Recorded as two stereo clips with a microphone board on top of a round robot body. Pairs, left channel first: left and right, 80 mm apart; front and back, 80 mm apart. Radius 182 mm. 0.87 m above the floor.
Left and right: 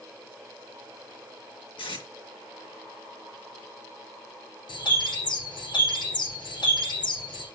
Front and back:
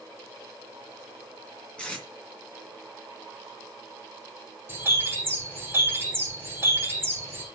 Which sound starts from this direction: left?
Tape being pulled, at 1.8 s.